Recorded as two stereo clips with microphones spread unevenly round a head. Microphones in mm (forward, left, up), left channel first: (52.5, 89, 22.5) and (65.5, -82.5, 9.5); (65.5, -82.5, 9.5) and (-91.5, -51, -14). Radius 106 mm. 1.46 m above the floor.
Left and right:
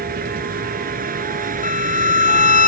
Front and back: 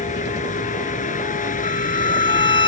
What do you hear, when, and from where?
0.0 s a vehicle: 50° right; by 2.7 s 45° right
1.6 s a violin: 55° left